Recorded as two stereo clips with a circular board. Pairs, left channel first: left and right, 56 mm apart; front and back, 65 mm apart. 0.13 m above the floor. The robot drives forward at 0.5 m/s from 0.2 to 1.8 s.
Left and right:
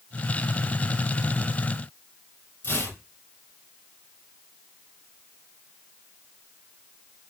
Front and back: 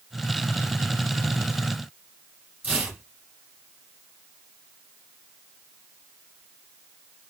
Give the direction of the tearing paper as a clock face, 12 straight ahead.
8 o'clock.